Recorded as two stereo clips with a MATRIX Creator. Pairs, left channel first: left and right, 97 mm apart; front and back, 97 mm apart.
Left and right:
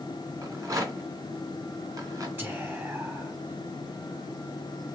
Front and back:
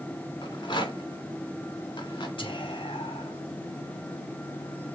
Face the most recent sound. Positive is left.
turn(degrees=-25)